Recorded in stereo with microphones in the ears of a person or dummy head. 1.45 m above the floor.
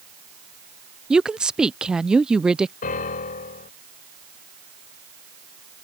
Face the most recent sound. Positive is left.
turn(degrees=45)  # may be behind; listen again after turning